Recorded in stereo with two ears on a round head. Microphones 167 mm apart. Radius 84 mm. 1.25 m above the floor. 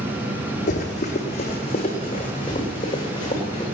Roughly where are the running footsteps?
Left.